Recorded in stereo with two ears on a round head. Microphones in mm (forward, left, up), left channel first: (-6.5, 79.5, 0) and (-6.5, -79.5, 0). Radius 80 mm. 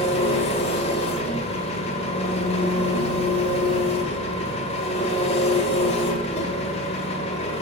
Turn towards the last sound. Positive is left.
turn(degrees=35)  # may be behind; listen again after turning